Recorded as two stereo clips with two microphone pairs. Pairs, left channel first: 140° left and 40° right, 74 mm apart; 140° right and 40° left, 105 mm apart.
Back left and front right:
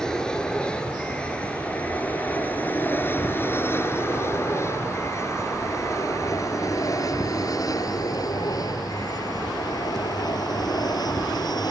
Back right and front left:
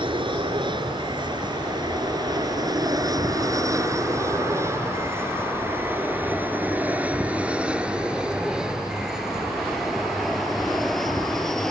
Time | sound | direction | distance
0.0 | an aircraft | 60° left | ?